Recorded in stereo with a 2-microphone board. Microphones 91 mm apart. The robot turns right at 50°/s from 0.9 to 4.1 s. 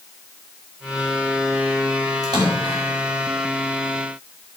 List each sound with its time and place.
2.2 s a splash: 135° right, 4.5 m; by 2.9 s 105° right, 4.5 m